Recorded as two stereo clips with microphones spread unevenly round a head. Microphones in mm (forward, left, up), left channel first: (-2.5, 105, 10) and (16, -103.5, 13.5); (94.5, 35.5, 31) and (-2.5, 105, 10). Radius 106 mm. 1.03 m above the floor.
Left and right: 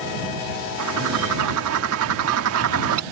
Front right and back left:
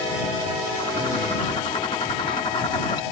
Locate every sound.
0.8 s a bird: 105° right